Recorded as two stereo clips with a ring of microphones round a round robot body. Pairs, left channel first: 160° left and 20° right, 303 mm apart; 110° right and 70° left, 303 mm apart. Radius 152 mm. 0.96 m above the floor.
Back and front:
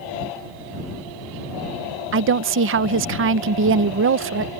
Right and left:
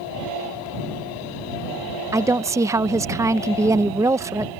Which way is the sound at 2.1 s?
10° right.